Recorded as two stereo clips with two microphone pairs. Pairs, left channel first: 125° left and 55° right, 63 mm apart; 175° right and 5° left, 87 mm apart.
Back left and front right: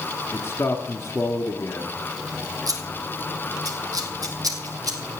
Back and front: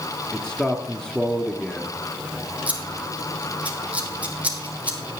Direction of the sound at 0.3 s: 105° left.